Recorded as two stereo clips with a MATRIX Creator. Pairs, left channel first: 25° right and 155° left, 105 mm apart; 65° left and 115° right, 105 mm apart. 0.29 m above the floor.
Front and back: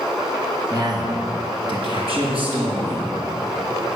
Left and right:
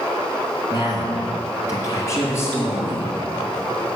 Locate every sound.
0.7 s a man speaking: 105° left, 2.5 m; by 3.1 s 135° left, 6 m